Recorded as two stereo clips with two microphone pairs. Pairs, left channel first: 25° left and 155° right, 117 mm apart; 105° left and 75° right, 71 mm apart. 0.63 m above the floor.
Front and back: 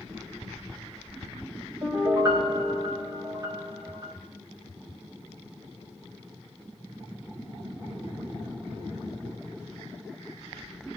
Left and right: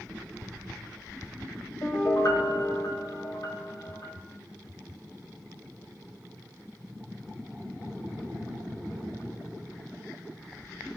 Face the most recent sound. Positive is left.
turn(degrees=145)